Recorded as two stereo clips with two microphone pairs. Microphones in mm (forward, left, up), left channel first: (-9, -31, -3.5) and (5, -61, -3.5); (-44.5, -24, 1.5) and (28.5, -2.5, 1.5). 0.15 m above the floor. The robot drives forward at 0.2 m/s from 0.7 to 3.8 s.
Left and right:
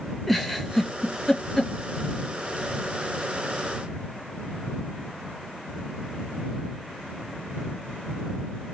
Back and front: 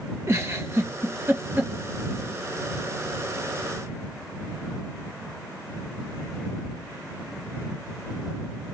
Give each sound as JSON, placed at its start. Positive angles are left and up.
{"t": 0.3, "sound": "a giggle", "azimuth_deg": 30, "distance_m": 0.8}